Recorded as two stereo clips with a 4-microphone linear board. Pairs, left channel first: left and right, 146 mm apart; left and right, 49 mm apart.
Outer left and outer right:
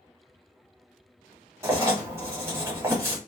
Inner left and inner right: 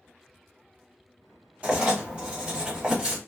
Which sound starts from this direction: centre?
Writing, at 1.6 s.